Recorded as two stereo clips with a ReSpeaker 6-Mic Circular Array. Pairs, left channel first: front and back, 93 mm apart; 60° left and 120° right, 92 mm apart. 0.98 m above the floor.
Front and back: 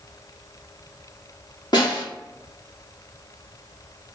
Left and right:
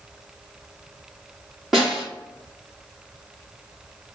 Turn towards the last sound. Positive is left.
turn(degrees=-30)